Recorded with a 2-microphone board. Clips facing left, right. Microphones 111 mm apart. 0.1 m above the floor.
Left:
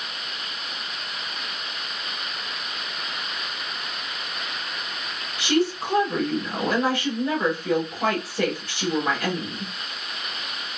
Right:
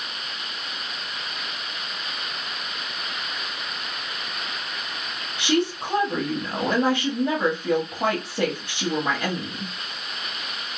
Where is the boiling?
No boiling in this recording.